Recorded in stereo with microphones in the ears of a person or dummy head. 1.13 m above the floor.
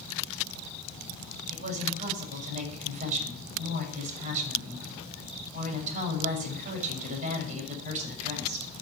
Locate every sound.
1.5 s a woman speaking: 40° right (ahead or behind), 6.5 m